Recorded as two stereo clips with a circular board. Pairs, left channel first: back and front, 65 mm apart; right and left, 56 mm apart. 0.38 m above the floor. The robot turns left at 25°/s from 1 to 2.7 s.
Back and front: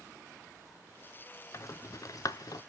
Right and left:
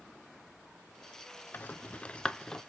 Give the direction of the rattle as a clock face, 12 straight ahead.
5 o'clock.